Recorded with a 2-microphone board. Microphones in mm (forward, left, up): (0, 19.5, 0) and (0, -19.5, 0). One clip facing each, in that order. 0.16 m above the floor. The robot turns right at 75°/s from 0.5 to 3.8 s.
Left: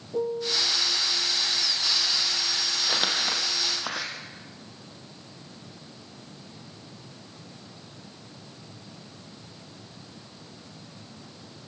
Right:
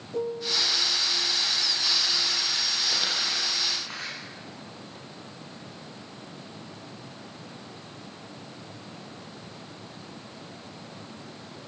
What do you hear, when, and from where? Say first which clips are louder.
0.1 s a piano: left 1 dB; 5° left (ahead or behind), 1.8 m; by 0.7 s 5° right (ahead or behind), 1.8 m
2.8 s crumpling: left 5 dB; 15° left, 3 m; by 4.1 s 95° left, 3 m